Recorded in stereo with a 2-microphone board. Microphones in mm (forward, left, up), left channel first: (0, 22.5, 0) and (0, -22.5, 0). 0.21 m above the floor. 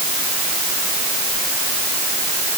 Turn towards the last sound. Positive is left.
No sound to turn to.